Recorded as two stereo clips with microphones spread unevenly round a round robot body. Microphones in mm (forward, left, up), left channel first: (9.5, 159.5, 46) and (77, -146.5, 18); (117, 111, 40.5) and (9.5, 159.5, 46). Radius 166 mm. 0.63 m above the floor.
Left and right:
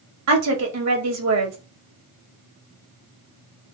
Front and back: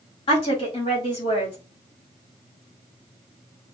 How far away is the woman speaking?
About 1.5 m.